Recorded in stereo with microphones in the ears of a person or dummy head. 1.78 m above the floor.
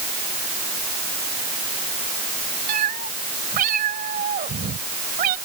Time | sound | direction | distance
2.7 | a cat meowing | 45° right (ahead or behind) | ?